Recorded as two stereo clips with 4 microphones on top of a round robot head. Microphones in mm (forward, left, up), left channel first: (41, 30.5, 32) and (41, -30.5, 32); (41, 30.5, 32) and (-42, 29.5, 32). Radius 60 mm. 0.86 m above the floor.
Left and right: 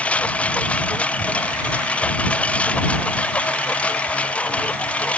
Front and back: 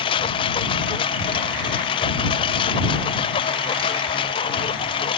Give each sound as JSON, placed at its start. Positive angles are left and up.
{"t": 0.0, "sound": "a lawn mower", "azimuth_deg": 20}